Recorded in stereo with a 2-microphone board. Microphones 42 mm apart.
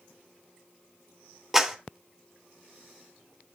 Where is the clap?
10° right (ahead or behind), 2.5 m.